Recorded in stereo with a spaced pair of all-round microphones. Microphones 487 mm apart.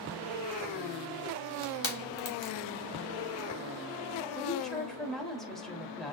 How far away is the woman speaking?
About 4 m.